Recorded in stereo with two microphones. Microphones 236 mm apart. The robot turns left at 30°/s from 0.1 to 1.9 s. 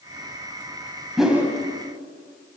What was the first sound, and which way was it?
A whoosh, centre (ahead or behind).